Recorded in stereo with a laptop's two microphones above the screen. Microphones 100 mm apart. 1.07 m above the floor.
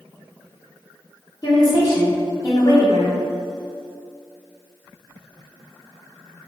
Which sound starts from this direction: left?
A woman speaking, at 1.4 s.